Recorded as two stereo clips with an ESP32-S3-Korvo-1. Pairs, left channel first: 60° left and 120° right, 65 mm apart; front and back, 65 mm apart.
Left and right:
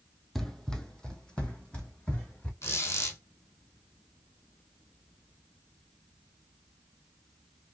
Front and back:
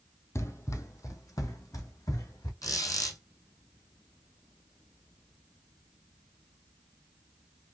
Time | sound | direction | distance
0.3 | running footsteps | 25° right | 0.7 m
2.6 | a squeak | 15° left | 2 m